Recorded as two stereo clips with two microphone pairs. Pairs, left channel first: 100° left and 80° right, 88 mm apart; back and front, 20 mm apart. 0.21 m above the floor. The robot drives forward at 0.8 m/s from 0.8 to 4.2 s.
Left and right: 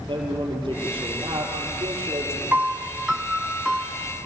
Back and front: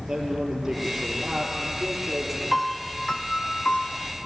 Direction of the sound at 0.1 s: 65° right.